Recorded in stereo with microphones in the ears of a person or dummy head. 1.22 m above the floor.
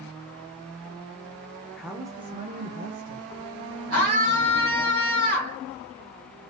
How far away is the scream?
About 1.7 m.